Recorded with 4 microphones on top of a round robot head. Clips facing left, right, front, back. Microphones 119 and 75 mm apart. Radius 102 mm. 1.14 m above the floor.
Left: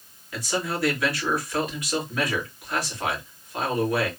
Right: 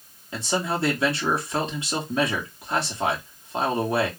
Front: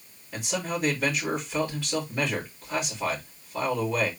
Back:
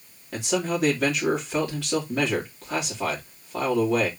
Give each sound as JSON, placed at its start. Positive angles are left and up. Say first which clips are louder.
{"t": 0.3, "sound": "a man speaking", "louder": "right 2 dB, back 5 dB", "azimuth_deg": -155, "distance_m": 3.0}